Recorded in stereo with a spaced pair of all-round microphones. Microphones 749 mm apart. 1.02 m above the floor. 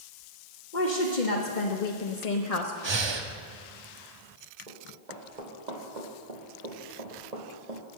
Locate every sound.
0.7 s a woman speaking: 85° left, 1.6 m; by 2.7 s 45° left (ahead or behind), 0.9 m
2.8 s breathing: 35° right (ahead or behind), 0.8 m
4.7 s running footsteps: 70° right (ahead or behind), 3 m; by 8.0 s 50° right (ahead or behind), 1.5 m